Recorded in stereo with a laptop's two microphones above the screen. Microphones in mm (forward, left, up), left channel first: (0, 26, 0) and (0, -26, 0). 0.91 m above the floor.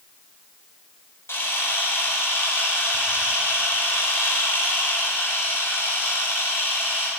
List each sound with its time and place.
1.3 s a camera shutter: 55° left (ahead or behind), 5 m